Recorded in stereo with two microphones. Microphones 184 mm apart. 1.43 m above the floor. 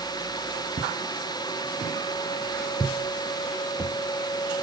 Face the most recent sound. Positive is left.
turn(degrees=5)  # may be behind; listen again after turning